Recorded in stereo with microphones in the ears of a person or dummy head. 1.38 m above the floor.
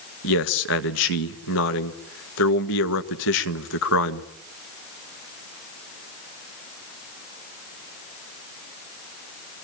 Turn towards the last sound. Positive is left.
turn(degrees=75)  # may be behind; listen again after turning